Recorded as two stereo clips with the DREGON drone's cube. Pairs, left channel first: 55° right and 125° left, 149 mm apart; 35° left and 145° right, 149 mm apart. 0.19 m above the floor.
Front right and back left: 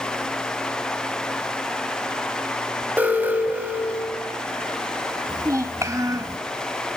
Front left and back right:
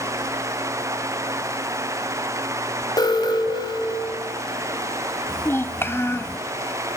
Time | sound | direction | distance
3.0 | an alarm | 55° left | 1.9 m
5.3 | a child speaking | 85° left | 0.8 m